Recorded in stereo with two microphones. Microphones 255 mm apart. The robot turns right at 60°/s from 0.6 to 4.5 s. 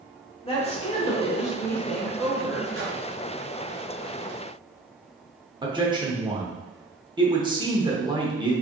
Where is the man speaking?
20° right (ahead or behind), 0.9 m.